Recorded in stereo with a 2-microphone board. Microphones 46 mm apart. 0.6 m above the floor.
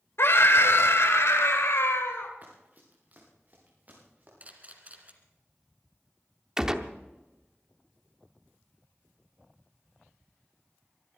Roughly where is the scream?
Left.